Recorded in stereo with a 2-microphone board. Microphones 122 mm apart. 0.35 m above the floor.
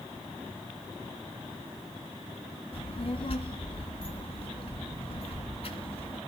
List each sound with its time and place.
2.7 s a child speaking: 50° left (ahead or behind), 2.5 m